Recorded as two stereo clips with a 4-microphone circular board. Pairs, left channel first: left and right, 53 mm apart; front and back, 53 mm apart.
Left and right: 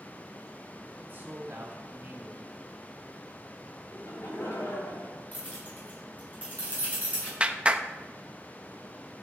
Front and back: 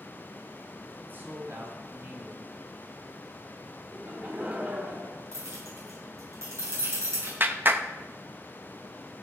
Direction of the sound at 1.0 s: 135° right.